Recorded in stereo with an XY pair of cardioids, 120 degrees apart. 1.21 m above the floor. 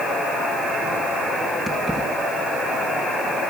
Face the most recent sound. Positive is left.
turn(degrees=-5)